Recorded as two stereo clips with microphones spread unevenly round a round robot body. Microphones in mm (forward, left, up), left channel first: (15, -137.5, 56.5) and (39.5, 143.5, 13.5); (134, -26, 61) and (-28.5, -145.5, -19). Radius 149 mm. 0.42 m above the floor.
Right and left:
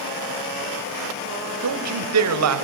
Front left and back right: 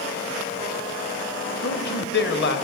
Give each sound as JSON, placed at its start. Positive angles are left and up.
{"t": 1.6, "sound": "a man speaking", "azimuth_deg": 95, "distance_m": 1.8}